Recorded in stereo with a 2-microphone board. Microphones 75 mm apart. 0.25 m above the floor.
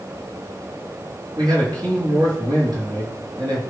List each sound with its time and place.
1.4 s a man speaking: 70° right (ahead or behind), 4.5 m